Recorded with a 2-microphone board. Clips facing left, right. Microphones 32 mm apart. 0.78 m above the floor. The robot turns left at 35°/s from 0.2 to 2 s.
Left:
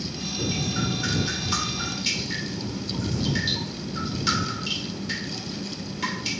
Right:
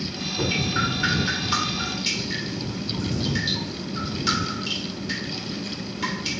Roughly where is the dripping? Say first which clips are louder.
Right 4 dB; behind right.